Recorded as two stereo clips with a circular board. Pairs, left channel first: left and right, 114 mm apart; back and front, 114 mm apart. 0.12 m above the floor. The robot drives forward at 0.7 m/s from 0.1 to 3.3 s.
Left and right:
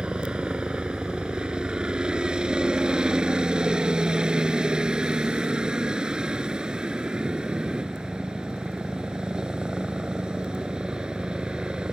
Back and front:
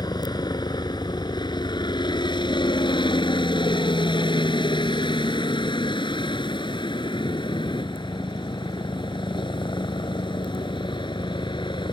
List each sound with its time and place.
0.0 s a helicopter: 165° right; by 11.9 s 170° right